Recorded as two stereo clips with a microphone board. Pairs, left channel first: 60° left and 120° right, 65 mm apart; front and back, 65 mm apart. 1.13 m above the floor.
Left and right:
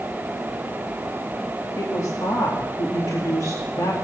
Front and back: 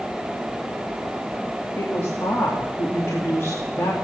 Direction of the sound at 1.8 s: 45° left.